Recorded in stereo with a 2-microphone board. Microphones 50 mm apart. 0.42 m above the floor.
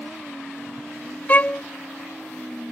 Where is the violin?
35° left (ahead or behind).